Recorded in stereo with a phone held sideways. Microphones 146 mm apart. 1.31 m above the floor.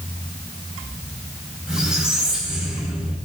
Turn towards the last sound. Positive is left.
turn(degrees=-5)  # may be behind; listen again after turning